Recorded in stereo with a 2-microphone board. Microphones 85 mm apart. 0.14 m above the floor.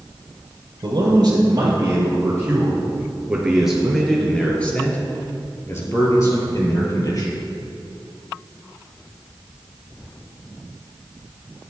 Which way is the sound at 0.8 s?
45° right (ahead or behind).